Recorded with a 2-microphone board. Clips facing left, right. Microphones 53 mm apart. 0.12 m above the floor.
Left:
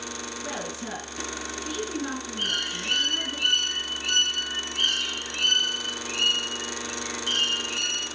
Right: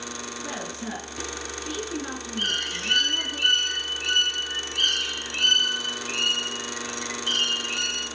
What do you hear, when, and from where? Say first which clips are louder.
0.4 s a woman speaking: even; 5° left (ahead or behind), 2.5 m
2.4 s a bird: right 3 dB; 60° right (ahead or behind), 3 m